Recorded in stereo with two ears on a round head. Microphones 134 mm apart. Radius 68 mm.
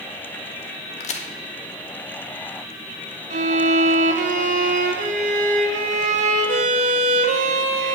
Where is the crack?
50° left (ahead or behind), 1.6 m.